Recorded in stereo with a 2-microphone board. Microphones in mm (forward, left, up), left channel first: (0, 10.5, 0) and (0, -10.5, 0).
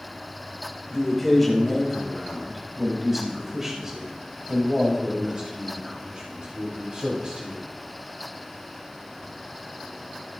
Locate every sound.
0.9 s a man speaking: 15° left (ahead or behind), 4.5 m; by 7.6 s 50° right (ahead or behind), 5.5 m